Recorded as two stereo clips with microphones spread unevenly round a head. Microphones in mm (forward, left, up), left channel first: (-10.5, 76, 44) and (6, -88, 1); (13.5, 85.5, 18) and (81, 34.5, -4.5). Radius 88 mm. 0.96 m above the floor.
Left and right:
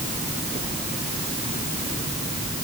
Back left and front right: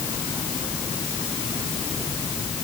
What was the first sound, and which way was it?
Only background noise.